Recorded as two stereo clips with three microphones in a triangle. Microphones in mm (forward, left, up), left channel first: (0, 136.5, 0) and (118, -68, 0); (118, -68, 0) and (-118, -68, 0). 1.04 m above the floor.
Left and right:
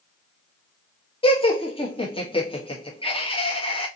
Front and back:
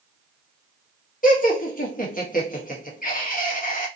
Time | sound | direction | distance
1.2 | laughter | 50° left | 1.3 m